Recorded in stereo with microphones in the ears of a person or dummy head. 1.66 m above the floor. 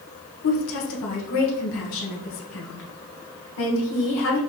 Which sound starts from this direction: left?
A woman speaking, at 0.4 s.